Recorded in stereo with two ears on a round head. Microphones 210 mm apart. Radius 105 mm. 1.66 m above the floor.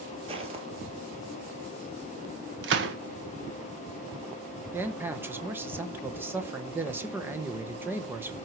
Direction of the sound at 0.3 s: 25° right (ahead or behind).